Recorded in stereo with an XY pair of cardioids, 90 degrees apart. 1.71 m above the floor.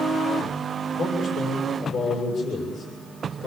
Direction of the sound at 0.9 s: 60° left.